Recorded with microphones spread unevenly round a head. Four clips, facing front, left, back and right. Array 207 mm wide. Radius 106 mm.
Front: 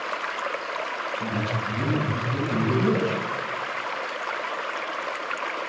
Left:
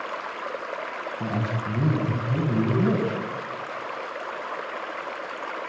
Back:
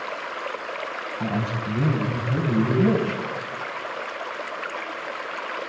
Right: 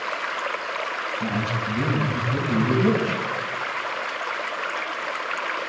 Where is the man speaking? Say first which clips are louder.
Right 1 dB, back 4 dB; 145° left, 8 m.